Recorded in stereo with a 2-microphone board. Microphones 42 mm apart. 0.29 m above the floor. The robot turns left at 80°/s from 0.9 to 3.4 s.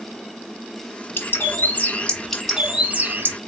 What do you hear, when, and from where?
1.2 s a bird: 105° left, 1.2 m; by 3.4 s 70° right, 1.2 m